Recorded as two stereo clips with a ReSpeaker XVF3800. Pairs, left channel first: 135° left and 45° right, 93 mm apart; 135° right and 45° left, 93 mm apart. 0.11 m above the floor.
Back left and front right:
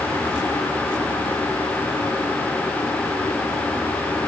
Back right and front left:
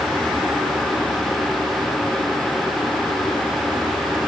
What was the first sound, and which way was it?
Only background noise.